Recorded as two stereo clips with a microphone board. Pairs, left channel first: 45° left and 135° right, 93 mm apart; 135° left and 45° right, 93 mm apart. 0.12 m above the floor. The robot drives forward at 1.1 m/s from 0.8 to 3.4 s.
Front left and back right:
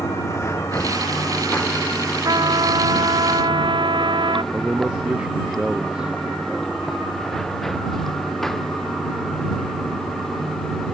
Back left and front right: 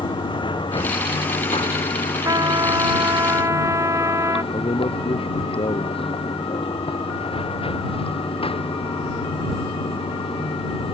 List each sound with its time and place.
0.0 s running water: 105° left; by 10.9 s 130° left
2.2 s a trumpet: 90° right; by 4.4 s 100° right
4.5 s a man speaking: 145° left